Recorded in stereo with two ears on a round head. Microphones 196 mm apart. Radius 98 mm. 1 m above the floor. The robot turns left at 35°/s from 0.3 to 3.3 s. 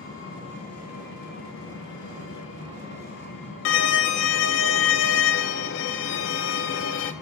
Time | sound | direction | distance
0.0 | an engine running | 160° left | 6.5 m
3.6 | a violin | 55° left (ahead or behind) | 0.7 m